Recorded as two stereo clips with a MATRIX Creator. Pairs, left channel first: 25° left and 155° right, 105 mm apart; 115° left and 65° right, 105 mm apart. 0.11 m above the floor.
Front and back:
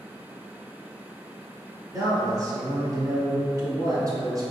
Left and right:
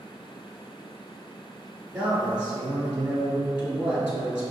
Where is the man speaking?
140° right, 1.5 m.